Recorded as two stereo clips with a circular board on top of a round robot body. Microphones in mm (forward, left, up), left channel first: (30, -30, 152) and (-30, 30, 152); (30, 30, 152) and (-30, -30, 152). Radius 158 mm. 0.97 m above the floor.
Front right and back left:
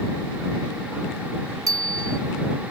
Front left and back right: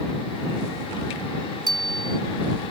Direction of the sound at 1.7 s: 175° right.